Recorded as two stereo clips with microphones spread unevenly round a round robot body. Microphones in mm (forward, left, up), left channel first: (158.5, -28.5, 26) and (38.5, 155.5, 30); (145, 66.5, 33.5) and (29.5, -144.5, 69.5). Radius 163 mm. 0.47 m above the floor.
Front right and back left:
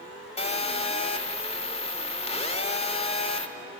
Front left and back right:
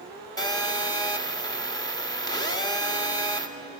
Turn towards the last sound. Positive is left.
turn(degrees=0)